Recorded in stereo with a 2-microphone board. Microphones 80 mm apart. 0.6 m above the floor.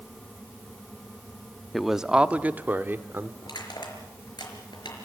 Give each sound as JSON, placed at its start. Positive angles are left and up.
{"t": 1.7, "sound": "a man speaking", "side_deg": 0, "distance_m": 0.6}
{"t": 3.4, "sound": "crushing", "side_deg": 65, "distance_m": 4.5}